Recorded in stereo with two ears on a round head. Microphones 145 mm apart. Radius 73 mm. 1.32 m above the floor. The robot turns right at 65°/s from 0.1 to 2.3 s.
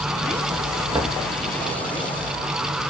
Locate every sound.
0.9 s knocking: 20° right (ahead or behind), 1.5 m; by 1.2 s 5° right (ahead or behind), 1.5 m